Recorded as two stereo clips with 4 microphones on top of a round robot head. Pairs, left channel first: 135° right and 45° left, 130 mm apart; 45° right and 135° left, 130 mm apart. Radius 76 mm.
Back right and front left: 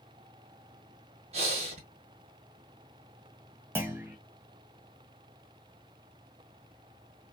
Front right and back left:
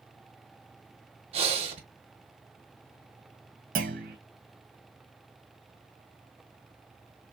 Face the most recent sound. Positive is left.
turn(degrees=120)